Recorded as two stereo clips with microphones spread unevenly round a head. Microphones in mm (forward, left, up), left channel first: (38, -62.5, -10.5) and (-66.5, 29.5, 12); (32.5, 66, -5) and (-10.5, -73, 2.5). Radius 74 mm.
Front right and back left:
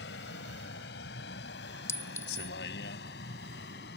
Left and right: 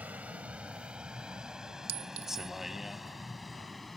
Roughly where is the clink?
Behind right.